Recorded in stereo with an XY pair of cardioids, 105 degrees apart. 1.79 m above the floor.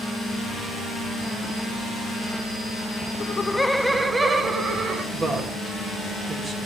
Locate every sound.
3.2 s laughter: 45° left, 1.0 m; by 5.0 s 40° right, 3 m
5.1 s a woman speaking: 40° right, 3 m